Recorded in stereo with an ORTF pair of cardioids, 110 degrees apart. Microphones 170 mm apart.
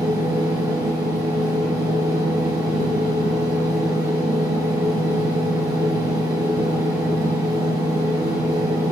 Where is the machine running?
20° right, 1.2 m.